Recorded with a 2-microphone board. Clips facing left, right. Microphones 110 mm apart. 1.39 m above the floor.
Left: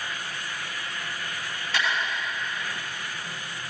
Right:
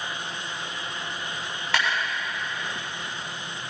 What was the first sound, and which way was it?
A clap, 85° right.